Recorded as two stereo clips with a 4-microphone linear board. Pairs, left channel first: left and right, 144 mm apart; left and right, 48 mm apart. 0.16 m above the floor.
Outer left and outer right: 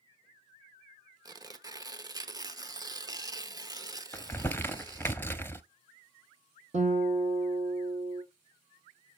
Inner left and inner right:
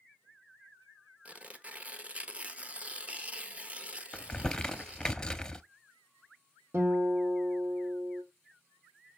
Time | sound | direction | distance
1.2 | tearing paper | 25° right (ahead or behind) | 0.8 m
4.1 | crumpling | 15° left (ahead or behind) | 0.6 m
6.7 | a guitar | 50° right (ahead or behind) | 1.8 m